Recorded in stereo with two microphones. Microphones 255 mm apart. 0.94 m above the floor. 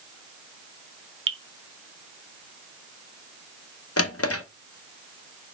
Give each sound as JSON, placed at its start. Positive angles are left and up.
{"t": 1.3, "sound": "dripping", "side_deg": -55, "distance_m": 0.8}
{"t": 4.0, "sound": "a drawer", "side_deg": 70, "distance_m": 0.7}